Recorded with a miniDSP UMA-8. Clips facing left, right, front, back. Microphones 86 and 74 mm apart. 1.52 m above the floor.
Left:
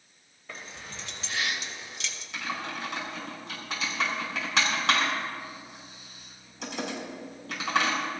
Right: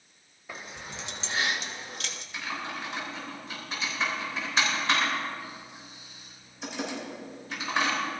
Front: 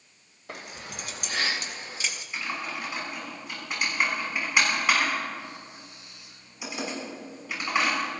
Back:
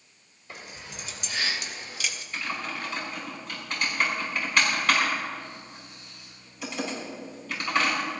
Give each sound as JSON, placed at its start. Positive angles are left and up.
{"t": 0.5, "sound": "keys jangling", "azimuth_deg": -10, "distance_m": 1.7}
{"t": 2.3, "sound": "typing on a keyboard", "azimuth_deg": 75, "distance_m": 6.0}